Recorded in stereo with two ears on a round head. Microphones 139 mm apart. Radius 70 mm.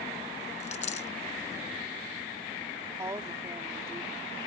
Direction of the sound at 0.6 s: 45° left (ahead or behind).